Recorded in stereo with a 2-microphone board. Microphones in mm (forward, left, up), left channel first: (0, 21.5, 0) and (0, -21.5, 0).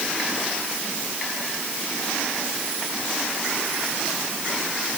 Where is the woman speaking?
I don't hear a woman speaking.